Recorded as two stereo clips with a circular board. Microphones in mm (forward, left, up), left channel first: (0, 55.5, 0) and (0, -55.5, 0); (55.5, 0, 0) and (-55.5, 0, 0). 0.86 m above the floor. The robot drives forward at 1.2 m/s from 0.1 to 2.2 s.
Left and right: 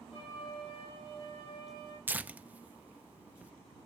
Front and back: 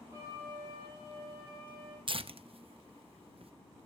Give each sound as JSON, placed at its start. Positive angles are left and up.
{"t": 0.1, "sound": "a flute", "azimuth_deg": 120, "distance_m": 7.5}
{"t": 2.1, "sound": "tearing paper", "azimuth_deg": -155, "distance_m": 0.5}